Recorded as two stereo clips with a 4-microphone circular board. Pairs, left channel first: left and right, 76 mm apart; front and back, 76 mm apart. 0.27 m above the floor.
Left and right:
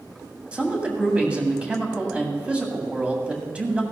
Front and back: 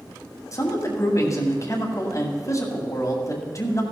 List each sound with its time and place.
0.5 s a man speaking: 20° right, 2.0 m